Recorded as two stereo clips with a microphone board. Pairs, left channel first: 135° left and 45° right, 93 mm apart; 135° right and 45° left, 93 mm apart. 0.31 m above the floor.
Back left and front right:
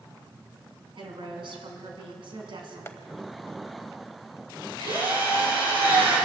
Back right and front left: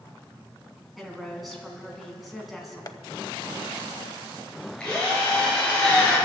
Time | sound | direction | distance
1.0 | a woman speaking | 45° right | 3 m
2.9 | tapping | 170° right | 0.7 m
4.8 | a drill | 55° right | 6 m